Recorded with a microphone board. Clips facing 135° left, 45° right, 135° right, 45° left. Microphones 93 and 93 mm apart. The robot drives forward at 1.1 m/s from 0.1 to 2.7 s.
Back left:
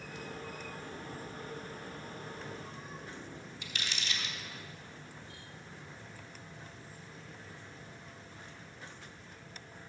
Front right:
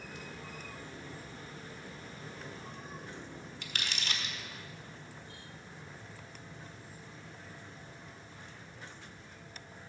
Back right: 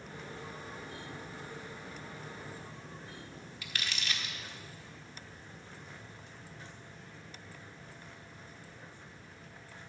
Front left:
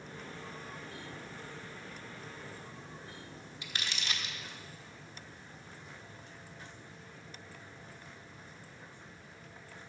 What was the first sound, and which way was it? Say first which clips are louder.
Crumpling: front right 1 dB, even; 20° right.